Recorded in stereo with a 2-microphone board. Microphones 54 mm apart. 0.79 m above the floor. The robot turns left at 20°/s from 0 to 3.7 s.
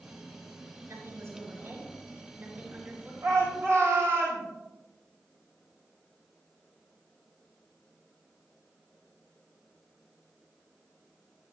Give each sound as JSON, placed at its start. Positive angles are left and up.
{"t": 0.9, "sound": "a woman speaking", "azimuth_deg": -110, "distance_m": 3.5}
{"t": 3.2, "sound": "a shout", "side_deg": -65, "distance_m": 4.0}